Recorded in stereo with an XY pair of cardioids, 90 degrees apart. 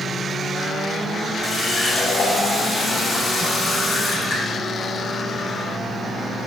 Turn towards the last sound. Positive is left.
turn(degrees=50)